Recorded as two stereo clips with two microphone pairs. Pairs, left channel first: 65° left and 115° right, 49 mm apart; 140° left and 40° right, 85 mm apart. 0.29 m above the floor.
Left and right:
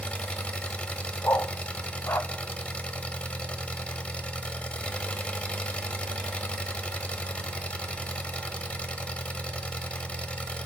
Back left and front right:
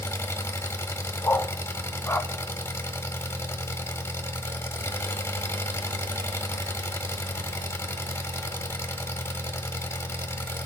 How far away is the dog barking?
About 0.5 m.